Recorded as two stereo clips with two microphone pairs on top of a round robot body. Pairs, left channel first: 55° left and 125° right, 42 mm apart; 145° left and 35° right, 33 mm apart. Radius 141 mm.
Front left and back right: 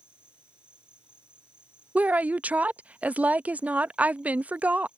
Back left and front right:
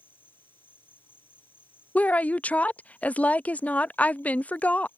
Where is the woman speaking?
170° right.